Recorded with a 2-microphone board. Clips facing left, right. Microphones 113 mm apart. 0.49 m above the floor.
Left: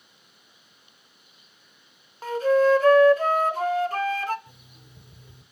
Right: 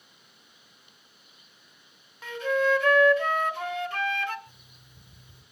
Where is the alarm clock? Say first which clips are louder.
Left 4 dB; 70° left (ahead or behind), 1.5 m.